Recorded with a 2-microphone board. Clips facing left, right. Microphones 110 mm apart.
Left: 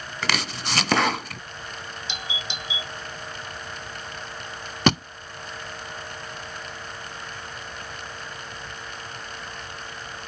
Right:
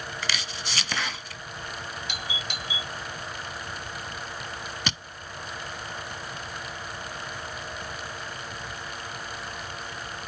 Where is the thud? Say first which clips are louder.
Left 16 dB; 60° left (ahead or behind).